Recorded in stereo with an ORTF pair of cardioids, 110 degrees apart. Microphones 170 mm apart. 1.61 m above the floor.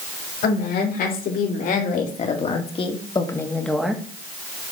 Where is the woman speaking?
65° left, 3 m; by 4.0 s 5° right, 1.5 m.